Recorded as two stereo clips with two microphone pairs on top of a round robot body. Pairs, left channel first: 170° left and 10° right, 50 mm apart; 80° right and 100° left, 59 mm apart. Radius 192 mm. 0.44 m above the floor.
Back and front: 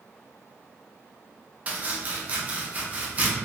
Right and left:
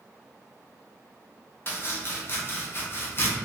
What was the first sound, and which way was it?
Chopping, 55° right.